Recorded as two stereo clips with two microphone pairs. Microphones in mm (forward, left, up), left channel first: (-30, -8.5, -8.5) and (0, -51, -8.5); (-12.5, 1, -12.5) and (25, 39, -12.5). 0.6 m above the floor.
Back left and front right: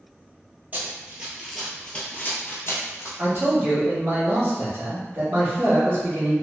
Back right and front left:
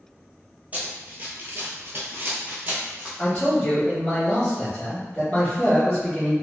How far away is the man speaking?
About 1.2 m.